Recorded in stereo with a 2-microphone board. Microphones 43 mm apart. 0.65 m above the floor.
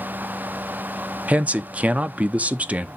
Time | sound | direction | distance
1.3 | a man speaking | 35° right (ahead or behind) | 0.6 m